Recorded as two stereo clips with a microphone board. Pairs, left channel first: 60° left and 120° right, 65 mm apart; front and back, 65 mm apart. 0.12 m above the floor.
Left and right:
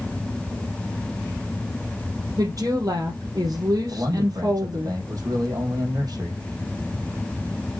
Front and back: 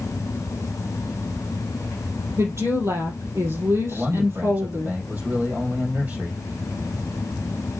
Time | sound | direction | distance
2.4 | a woman speaking | 140° right | 3 m
3.9 | a man speaking | 115° right | 3.5 m